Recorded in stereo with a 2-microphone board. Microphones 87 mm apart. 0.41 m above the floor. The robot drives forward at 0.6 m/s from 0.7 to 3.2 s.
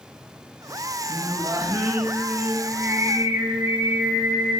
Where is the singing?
50° right (ahead or behind), 2.5 m; by 4.6 s 35° right (ahead or behind), 3.5 m.